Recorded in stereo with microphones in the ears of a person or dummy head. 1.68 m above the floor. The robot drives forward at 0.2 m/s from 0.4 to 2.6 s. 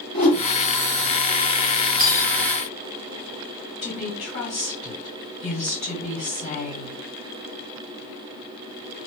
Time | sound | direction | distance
0.1 | a whoosh | 30° left (ahead or behind) | 1.5 m
2.0 | cutlery clinking | 45° right (ahead or behind) | 1.0 m
3.8 | a woman speaking | 35° left (ahead or behind) | 1.8 m